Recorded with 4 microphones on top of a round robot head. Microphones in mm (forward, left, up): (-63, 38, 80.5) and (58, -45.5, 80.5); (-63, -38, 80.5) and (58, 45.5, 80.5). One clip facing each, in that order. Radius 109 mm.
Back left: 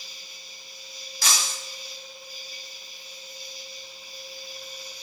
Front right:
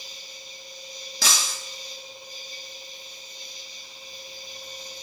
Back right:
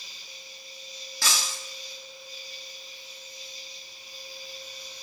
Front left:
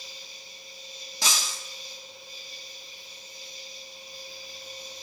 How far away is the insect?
About 2 m.